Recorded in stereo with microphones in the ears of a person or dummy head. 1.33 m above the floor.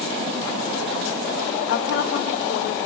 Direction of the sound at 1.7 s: 60° left (ahead or behind).